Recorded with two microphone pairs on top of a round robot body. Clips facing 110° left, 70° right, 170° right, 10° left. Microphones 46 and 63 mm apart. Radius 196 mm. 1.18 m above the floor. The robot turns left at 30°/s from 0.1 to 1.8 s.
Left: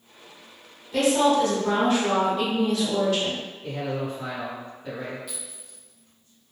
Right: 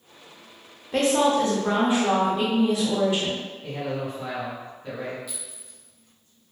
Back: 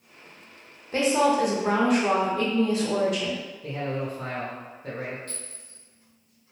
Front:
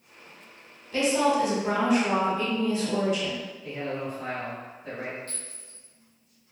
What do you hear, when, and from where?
0.9 s a woman speaking: 120° right, 0.9 m; by 3.4 s 145° right, 0.9 m
3.6 s a man speaking: 160° right, 0.9 m
5.3 s a clink: 60° left, 0.7 m